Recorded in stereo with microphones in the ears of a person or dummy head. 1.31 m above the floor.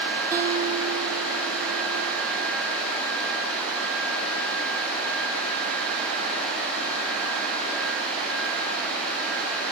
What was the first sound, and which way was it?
A guitar, 15° right (ahead or behind).